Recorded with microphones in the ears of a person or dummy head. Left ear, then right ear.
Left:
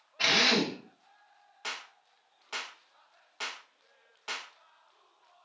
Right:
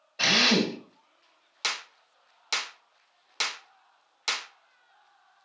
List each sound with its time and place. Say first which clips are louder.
0.2 s a drill: right 3 dB; 75° right (ahead or behind), 1.9 m
1.6 s a clap: right 8 dB; 70° right (ahead or behind), 0.5 m